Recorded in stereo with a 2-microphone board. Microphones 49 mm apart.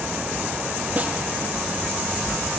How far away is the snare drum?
About 5 m.